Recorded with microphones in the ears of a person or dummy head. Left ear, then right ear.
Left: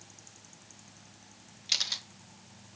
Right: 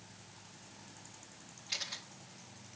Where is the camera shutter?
55° left (ahead or behind), 1.8 m.